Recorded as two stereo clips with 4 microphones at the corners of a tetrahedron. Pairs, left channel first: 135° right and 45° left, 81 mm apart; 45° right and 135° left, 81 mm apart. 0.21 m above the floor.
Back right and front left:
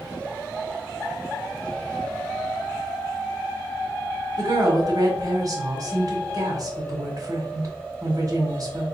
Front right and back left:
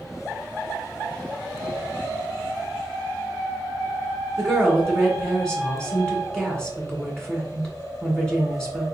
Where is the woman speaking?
35° left, 1.8 m.